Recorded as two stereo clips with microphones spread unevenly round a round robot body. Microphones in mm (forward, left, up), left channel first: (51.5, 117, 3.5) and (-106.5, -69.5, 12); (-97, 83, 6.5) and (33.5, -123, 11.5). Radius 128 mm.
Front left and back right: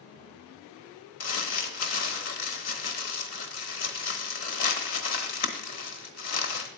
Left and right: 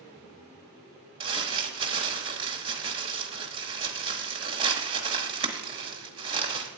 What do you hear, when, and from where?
1.2 s crumpling: 15° left, 1.0 m